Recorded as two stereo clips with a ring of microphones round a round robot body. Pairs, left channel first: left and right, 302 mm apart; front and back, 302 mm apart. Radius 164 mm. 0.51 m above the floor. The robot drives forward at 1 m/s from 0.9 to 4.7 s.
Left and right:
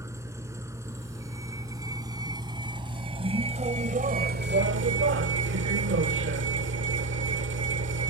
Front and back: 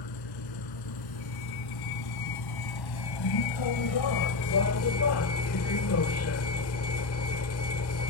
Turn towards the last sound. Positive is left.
turn(degrees=-40)